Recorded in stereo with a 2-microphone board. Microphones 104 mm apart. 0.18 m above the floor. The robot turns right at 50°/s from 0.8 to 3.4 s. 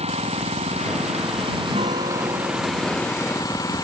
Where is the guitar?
95° right; by 3.7 s 10° right.